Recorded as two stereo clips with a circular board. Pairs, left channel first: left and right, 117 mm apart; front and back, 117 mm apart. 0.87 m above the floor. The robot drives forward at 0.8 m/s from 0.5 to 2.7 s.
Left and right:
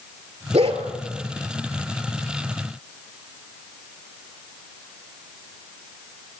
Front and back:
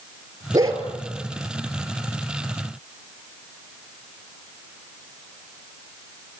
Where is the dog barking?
120° right, 4 m.